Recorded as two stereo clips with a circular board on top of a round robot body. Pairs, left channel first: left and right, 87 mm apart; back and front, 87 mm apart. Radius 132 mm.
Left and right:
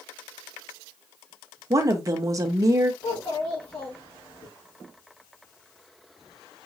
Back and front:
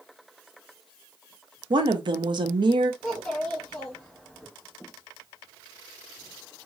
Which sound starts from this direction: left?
A child speaking, at 3.0 s.